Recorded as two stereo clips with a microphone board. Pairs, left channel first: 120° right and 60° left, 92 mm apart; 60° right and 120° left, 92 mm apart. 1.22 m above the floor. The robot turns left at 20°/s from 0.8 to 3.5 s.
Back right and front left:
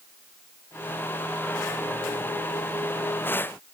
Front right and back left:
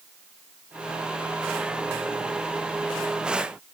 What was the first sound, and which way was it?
Only background noise.